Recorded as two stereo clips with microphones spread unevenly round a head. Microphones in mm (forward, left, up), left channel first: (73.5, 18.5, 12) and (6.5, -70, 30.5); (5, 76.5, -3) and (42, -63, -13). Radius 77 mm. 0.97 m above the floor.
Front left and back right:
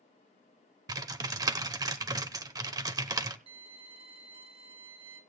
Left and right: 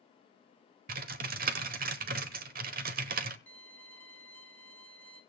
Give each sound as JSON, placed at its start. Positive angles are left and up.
{"t": 0.9, "sound": "typing on a keyboard", "azimuth_deg": -85, "distance_m": 1.1}
{"t": 3.5, "sound": "a violin", "azimuth_deg": -175, "distance_m": 1.3}